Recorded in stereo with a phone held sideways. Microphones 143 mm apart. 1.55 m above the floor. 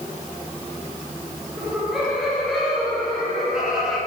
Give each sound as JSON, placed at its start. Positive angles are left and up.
{"t": 1.6, "sound": "laughter", "side_deg": -5, "distance_m": 4.5}